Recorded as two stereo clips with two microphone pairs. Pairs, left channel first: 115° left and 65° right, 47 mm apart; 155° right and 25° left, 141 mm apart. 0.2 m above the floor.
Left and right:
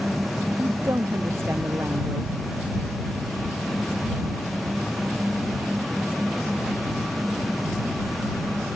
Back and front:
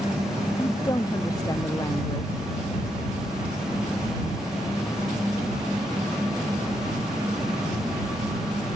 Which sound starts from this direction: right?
A woman speaking, at 0.6 s.